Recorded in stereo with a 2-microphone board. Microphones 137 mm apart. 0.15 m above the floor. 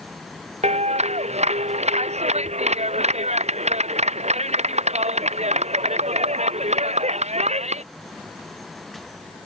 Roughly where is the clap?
Right.